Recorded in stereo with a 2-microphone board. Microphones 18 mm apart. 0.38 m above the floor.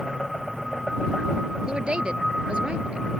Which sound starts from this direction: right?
A woman speaking, at 1.7 s.